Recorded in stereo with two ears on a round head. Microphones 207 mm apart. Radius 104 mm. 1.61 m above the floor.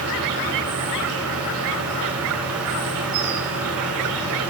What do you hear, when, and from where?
0.0 s an insect: 70° right (ahead or behind), 4 m